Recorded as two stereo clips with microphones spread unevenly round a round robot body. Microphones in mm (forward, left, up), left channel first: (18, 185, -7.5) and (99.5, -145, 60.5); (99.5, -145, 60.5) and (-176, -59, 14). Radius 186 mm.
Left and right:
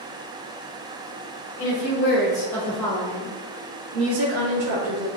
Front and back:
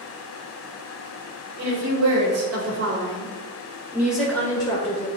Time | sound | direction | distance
1.6 | a woman speaking | 165° left | 3.5 m